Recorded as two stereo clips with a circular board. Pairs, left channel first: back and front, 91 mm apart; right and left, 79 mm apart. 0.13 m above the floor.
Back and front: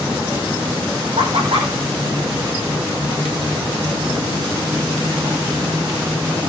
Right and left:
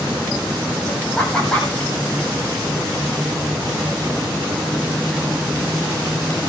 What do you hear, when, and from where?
1.2 s laughter: 15° right, 6 m